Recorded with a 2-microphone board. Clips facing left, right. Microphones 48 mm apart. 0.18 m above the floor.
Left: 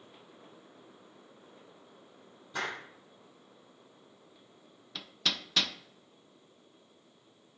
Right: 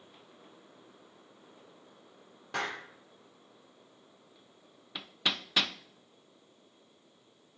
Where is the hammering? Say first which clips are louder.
Right 1 dB; 15° right (ahead or behind), 0.6 m.